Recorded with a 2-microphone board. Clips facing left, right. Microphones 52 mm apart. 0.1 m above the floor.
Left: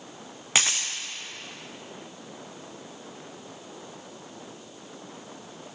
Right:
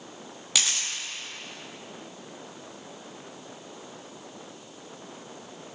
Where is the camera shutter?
35° left (ahead or behind), 1.6 m.